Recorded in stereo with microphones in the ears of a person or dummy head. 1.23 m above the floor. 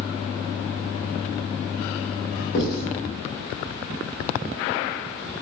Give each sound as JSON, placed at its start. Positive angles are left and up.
{"t": 2.5, "sound": "writing", "side_deg": 55, "distance_m": 1.3}